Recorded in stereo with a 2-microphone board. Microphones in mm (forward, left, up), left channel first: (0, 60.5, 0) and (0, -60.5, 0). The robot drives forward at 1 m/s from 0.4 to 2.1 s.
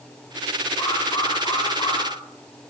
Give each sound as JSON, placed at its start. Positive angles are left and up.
{"t": 0.8, "sound": "an alarm", "side_deg": 35, "distance_m": 9.5}